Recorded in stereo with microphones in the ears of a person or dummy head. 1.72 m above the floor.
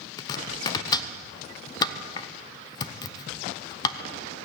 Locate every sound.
0.2 s chopping: 25° left (ahead or behind), 0.7 m